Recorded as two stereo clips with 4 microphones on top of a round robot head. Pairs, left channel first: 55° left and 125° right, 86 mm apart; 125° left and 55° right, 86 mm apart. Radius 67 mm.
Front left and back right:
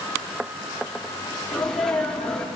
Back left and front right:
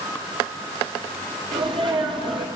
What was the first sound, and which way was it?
A sneeze, 25° right.